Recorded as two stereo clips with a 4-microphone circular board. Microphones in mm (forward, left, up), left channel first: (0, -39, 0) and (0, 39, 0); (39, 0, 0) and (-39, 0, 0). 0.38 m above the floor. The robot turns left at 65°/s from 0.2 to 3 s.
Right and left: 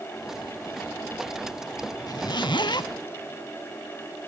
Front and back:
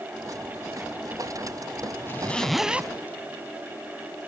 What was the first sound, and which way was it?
A zipper, 55° right.